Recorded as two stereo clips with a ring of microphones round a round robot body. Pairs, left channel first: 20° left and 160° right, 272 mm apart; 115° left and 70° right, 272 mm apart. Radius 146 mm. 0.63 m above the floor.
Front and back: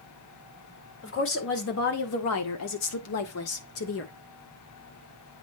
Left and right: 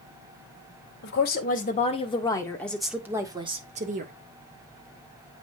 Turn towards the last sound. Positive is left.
turn(degrees=-15)